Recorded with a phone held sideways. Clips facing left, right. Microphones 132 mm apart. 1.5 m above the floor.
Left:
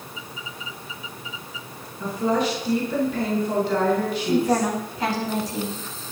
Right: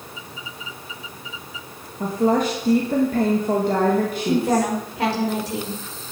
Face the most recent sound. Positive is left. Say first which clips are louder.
# even
turn(degrees=-70)  # may be behind; listen again after turning